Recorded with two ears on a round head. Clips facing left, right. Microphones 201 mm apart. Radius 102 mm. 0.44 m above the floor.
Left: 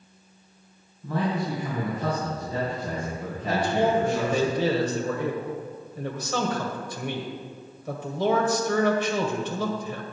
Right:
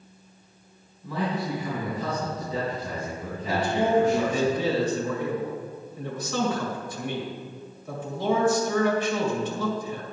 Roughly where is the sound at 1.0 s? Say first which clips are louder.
Left 2 dB; left.